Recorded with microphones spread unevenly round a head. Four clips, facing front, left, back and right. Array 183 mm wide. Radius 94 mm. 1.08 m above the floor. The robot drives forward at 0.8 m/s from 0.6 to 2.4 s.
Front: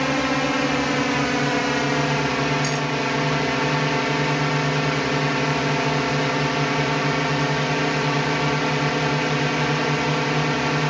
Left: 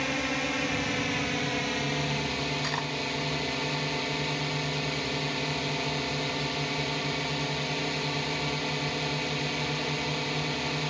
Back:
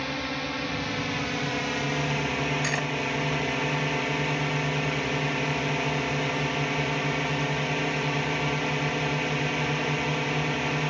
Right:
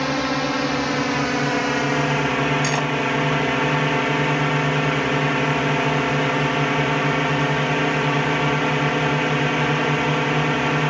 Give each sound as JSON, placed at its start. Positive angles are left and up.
{"t": 0.0, "sound": "a drone", "azimuth_deg": -40}
{"t": 2.6, "sound": "cutlery clinking", "azimuth_deg": -100}